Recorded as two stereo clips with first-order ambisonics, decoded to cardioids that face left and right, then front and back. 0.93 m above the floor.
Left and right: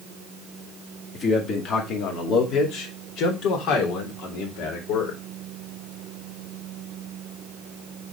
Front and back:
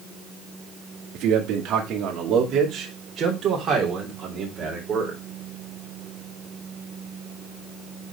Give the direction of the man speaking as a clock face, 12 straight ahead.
7 o'clock.